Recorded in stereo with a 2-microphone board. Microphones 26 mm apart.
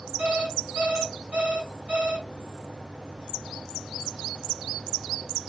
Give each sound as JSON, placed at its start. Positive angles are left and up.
{"t": 0.2, "sound": "an alarm clock", "side_deg": -60, "distance_m": 1.5}